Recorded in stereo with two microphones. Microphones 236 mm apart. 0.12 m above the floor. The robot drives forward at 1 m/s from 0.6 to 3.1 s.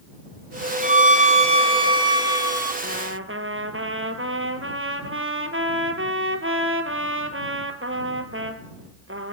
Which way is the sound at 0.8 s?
30° right (ahead or behind).